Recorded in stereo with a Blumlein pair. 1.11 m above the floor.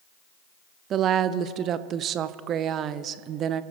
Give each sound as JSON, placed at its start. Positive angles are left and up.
{"t": 0.9, "sound": "a woman speaking", "azimuth_deg": -30, "distance_m": 0.7}